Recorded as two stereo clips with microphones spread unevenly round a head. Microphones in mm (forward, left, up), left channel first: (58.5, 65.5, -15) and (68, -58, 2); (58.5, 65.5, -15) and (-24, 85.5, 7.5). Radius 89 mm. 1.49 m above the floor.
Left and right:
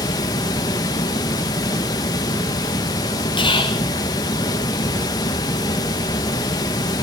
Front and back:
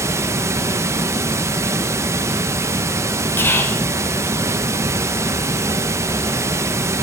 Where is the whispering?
50° left, 2.5 m.